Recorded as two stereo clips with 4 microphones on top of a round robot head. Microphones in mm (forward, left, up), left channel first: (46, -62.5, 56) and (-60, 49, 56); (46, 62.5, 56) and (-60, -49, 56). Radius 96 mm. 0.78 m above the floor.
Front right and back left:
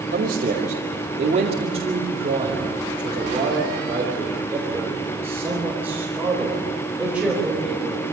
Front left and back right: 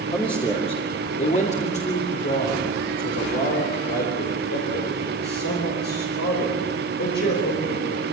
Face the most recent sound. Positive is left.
turn(degrees=50)